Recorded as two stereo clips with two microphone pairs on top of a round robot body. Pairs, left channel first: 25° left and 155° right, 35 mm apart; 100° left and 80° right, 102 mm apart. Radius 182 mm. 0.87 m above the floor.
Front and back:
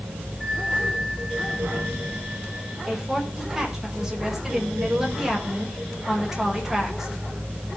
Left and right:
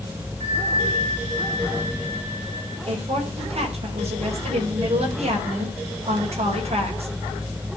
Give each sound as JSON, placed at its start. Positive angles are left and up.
{"t": 0.4, "sound": "a bell", "azimuth_deg": -70, "distance_m": 9.5}
{"t": 2.9, "sound": "a woman speaking", "azimuth_deg": -75, "distance_m": 5.0}